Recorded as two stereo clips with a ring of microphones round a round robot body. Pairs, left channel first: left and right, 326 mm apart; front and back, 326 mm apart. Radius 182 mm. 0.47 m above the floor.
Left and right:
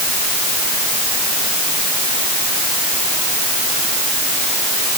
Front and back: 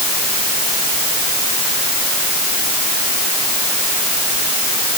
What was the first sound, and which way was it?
Only background noise.